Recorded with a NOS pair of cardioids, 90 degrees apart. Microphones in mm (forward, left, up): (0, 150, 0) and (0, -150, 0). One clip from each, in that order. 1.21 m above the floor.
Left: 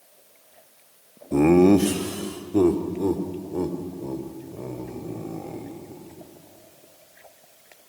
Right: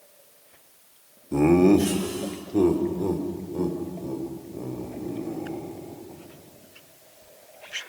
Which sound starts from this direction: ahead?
Laughter, at 1.3 s.